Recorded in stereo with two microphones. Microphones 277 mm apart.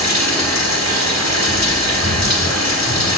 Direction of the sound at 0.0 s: 80° left.